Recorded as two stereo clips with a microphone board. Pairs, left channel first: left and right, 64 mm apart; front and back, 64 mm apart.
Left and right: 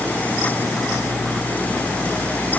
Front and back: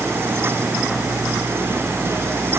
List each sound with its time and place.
Only background noise.